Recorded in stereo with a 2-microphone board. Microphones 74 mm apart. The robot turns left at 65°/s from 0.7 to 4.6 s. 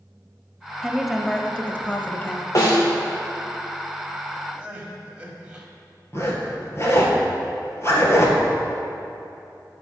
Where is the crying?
15° right (ahead or behind), 1.5 m.